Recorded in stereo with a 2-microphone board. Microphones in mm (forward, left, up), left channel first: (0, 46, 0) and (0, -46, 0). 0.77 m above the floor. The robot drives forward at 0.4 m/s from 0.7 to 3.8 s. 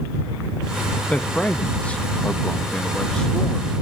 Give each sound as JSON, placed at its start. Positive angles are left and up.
{"t": 1.1, "sound": "a man speaking", "side_deg": 15, "distance_m": 0.7}